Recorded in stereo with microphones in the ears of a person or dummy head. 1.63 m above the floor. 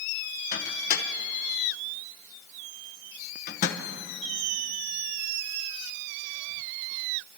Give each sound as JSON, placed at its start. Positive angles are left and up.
{"t": 0.5, "sound": "a microwave", "side_deg": 50, "distance_m": 1.0}